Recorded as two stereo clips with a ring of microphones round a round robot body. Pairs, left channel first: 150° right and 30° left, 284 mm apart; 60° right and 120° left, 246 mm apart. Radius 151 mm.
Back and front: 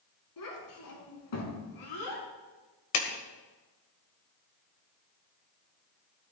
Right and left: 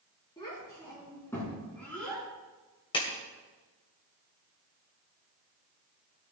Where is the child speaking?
135° right, 5.5 m; by 2.3 s 145° right, 5 m.